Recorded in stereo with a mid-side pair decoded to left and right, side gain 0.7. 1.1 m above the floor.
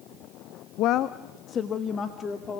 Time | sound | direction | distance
0.8 | a woman speaking | 60° left | 0.6 m